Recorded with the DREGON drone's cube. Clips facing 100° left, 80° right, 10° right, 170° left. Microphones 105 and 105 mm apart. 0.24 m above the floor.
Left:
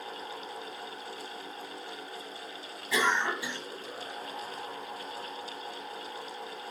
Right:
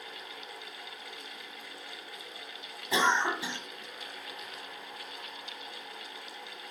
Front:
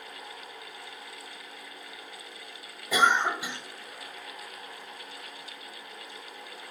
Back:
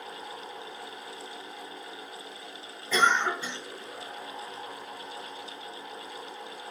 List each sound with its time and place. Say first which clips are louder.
2.9 s a cough: right 1 dB, front 1 dB; 70° right, 1.5 m